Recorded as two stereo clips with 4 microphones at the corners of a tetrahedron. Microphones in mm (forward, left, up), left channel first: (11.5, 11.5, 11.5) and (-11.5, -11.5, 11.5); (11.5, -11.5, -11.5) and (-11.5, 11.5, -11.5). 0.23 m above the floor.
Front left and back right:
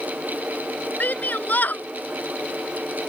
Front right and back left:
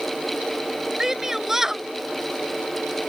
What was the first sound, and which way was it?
A shout, 60° left.